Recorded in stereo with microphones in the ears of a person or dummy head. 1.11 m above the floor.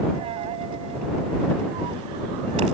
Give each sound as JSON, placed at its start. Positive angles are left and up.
{"t": 0.1, "sound": "a dropped coin", "side_deg": -35}